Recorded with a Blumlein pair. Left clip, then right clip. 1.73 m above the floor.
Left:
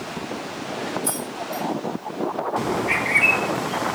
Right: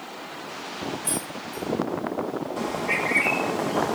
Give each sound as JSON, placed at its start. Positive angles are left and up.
{"t": 1.0, "sound": "keys jangling", "azimuth_deg": 45, "distance_m": 6.0}
{"t": 2.6, "sound": "a bird", "azimuth_deg": 65, "distance_m": 1.4}